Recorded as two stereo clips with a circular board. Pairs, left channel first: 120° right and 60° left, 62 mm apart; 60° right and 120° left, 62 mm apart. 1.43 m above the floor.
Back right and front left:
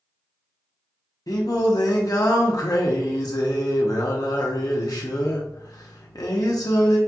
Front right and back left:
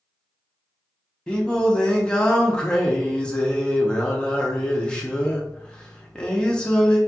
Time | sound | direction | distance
1.3 | singing | 135° right | 0.8 m